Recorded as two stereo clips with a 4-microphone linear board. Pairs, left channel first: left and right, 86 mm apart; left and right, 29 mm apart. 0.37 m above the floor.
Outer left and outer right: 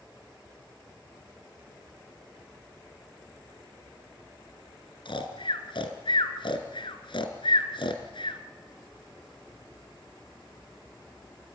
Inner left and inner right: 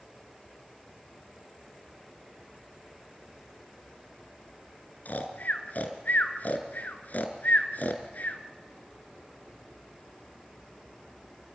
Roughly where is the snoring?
Left.